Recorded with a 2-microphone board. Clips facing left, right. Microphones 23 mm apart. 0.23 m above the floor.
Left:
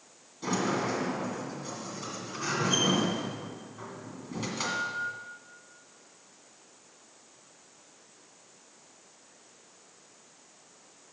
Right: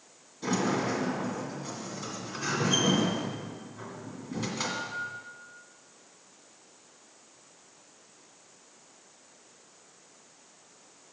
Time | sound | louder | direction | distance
0.4 | a sliding door | right 1 dB | 5° left (ahead or behind) | 2.0 m